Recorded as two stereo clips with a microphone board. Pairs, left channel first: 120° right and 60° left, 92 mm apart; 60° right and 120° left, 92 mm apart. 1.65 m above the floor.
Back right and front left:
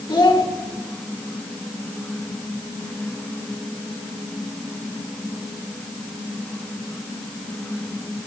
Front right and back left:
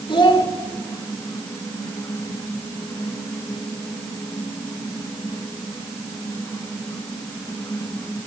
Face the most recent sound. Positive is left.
turn(degrees=-90)